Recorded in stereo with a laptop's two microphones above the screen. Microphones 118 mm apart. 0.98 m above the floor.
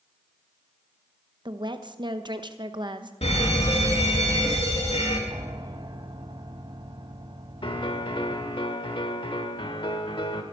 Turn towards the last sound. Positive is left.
turn(degrees=45)  # may be behind; listen again after turning